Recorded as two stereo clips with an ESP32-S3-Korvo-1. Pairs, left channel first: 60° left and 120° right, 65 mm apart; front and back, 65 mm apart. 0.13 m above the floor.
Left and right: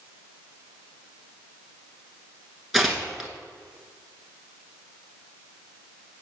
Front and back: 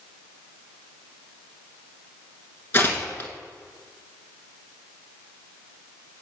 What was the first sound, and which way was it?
Tearing paper, 35° right.